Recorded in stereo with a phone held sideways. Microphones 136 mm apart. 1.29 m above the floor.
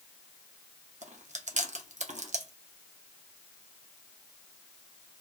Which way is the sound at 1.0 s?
60° right (ahead or behind).